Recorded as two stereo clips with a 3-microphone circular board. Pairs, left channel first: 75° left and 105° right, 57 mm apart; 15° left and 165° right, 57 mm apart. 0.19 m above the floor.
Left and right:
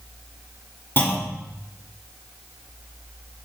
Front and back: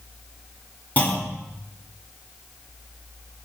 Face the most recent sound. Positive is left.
turn(degrees=60)